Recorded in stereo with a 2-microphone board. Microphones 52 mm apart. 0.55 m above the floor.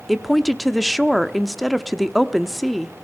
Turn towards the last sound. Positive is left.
turn(degrees=0)  # may be behind; listen again after turning